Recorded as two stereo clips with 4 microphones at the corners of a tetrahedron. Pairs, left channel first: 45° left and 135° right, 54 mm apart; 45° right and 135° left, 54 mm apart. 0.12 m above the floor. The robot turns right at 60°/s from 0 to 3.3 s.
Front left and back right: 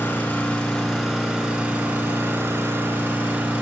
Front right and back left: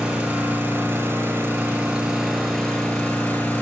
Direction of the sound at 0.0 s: 75° left.